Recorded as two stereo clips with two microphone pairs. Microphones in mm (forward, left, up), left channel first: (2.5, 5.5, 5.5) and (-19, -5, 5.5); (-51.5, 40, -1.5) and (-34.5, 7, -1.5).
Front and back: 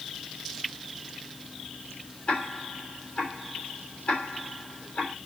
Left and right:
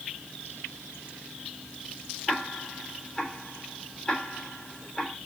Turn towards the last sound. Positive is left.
turn(degrees=45)